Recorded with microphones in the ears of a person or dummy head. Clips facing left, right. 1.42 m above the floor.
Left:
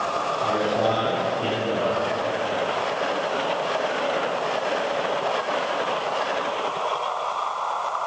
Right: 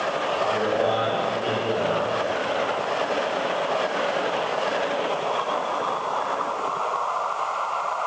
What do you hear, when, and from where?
0.4 s a man speaking: 75° left (ahead or behind), 4.5 m